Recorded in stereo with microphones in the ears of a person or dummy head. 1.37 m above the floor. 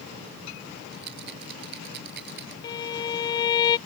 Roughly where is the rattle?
Right.